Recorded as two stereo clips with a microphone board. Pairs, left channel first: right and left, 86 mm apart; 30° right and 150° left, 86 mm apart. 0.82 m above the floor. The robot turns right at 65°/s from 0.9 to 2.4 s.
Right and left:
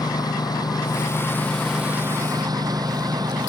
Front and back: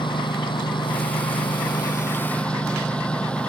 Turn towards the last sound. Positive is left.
turn(degrees=50)